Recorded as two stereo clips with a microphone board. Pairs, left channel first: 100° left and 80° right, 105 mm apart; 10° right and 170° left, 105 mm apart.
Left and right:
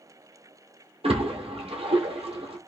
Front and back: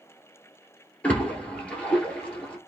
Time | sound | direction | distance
1.0 | a splash | 90° right | 1.5 m